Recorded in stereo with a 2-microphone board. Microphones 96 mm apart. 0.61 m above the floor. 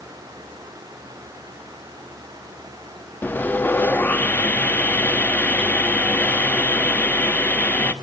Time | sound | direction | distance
3.2 | sawing | 20° left (ahead or behind) | 0.9 m